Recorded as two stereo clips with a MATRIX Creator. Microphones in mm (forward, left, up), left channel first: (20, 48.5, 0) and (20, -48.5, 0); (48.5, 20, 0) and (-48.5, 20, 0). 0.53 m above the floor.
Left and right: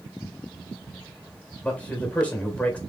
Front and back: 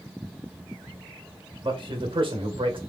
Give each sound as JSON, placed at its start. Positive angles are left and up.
{"t": 1.6, "sound": "a man speaking", "azimuth_deg": 165, "distance_m": 1.9}